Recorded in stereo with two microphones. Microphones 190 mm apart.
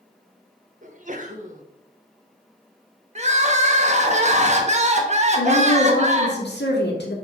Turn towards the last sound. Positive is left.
turn(degrees=75)  # may be behind; listen again after turning